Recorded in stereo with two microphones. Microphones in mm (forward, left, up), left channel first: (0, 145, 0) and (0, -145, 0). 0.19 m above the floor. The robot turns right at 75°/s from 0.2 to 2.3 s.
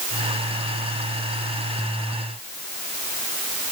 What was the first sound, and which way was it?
Only background noise.